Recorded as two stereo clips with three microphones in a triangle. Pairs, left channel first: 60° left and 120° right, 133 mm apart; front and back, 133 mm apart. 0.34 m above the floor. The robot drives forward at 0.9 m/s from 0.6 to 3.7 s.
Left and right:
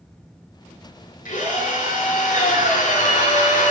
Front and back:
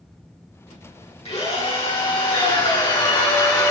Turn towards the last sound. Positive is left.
turn(degrees=65)